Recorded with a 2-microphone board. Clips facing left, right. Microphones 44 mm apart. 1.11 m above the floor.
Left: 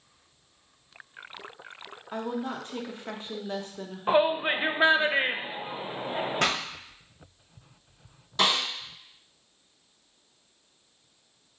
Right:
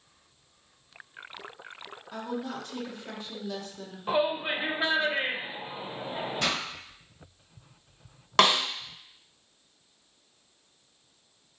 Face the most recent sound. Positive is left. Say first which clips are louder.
# right 3 dB
turn(degrees=-75)  # may be behind; listen again after turning